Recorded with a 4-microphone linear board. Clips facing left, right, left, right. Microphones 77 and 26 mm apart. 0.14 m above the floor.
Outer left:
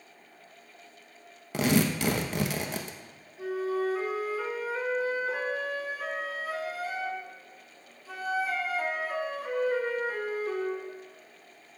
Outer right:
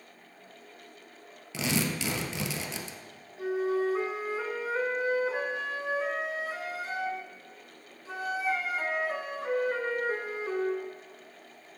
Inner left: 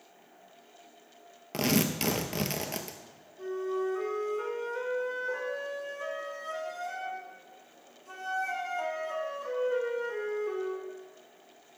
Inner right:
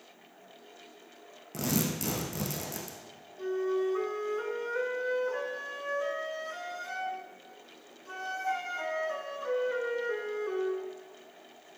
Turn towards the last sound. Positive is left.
turn(degrees=-25)  # may be behind; listen again after turning